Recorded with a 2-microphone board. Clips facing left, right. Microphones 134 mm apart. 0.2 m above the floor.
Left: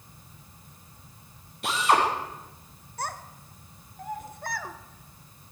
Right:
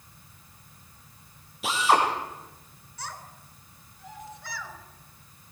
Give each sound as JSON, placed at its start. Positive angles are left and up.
{"t": 1.6, "sound": "a drill", "side_deg": 0, "distance_m": 5.0}
{"t": 3.0, "sound": "a child speaking", "side_deg": 55, "distance_m": 1.5}